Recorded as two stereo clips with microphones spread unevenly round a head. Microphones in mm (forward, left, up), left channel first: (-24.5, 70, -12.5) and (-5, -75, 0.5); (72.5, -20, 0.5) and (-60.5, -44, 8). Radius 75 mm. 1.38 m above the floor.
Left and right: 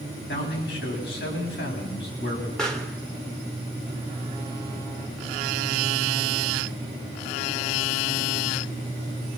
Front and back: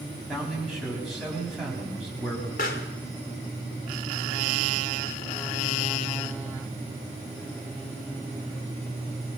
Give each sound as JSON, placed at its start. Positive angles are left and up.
{"t": 0.3, "sound": "a man speaking", "azimuth_deg": 100, "distance_m": 8.0}
{"t": 2.6, "sound": "a pop", "azimuth_deg": 15, "distance_m": 2.5}